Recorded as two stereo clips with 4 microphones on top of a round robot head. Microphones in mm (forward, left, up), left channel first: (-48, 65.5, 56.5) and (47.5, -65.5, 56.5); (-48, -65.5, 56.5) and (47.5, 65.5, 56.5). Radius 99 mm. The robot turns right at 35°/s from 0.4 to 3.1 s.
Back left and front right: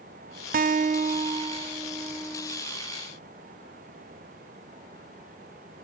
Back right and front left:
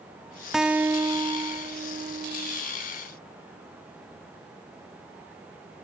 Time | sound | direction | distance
0.5 | a guitar | 35° right | 0.8 m